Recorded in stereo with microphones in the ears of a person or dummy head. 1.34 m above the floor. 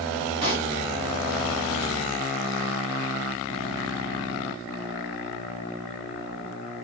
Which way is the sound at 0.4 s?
30° right (ahead or behind).